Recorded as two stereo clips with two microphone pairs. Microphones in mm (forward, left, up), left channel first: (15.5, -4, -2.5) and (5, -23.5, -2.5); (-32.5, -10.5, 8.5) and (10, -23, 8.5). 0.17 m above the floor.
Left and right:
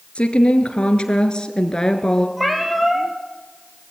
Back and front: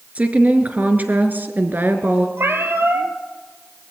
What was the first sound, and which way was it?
A woman speaking, 30° left.